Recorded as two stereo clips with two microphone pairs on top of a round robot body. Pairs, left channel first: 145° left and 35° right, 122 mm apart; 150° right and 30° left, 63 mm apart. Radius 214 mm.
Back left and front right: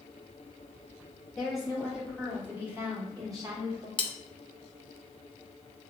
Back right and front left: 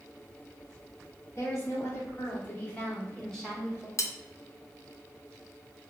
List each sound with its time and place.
1.4 s a woman speaking: 125° right, 1.9 m; by 3.9 s 60° right, 1.5 m
4.0 s cutlery clinking: 170° right, 0.5 m